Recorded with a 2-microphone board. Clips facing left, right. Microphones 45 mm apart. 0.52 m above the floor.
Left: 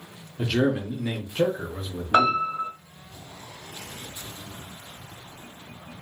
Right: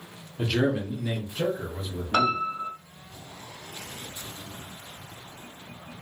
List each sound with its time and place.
0.4 s a man speaking: 5° right (ahead or behind), 0.7 m; by 2.4 s 60° left (ahead or behind), 1.1 m
2.1 s a piano: 25° left (ahead or behind), 0.5 m